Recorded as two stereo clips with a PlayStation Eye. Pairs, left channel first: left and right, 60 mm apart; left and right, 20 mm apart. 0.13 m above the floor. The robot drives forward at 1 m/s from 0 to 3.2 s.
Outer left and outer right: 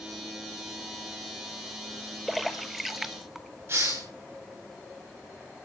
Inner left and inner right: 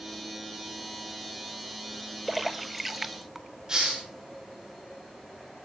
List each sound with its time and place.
2.3 s a splash: centre (ahead or behind), 1.7 m
3.7 s a hiss: 40° right (ahead or behind), 8.5 m